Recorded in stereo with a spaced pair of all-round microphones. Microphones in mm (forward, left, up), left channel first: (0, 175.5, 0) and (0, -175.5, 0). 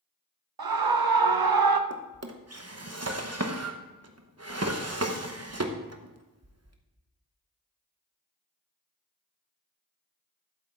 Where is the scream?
90° right, 0.5 m.